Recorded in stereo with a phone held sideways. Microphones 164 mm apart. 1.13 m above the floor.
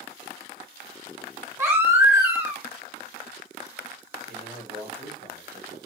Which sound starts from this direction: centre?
A baby crying, at 1.6 s.